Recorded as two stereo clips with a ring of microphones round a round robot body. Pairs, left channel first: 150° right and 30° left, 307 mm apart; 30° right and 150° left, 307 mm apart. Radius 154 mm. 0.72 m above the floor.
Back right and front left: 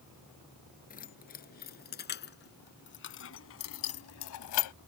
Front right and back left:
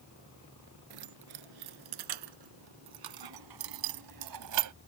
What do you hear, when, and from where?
0.9 s keys jangling: 145° left; by 4.8 s 175° right